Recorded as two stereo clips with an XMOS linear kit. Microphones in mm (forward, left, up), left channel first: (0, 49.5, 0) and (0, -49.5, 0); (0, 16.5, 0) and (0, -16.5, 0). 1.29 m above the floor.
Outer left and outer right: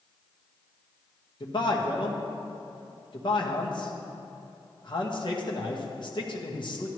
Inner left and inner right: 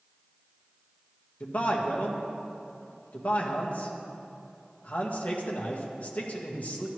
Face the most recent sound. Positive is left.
turn(degrees=50)  # may be behind; listen again after turning